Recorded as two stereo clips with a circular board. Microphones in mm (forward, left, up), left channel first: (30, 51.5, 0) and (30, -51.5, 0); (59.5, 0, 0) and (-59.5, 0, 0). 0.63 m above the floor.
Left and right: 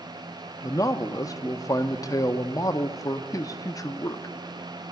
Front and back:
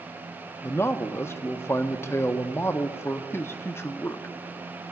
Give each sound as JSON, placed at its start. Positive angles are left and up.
{"t": 0.6, "sound": "a man speaking", "azimuth_deg": 55, "distance_m": 0.6}